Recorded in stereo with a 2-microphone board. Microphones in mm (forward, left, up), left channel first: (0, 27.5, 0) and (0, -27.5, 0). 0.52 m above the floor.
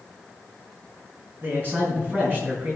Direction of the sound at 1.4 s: 40° right (ahead or behind).